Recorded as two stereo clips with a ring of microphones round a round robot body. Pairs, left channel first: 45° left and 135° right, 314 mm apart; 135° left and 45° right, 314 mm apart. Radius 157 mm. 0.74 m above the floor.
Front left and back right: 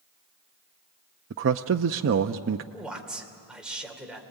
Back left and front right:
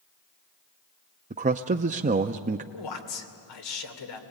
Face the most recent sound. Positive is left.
turn(degrees=135)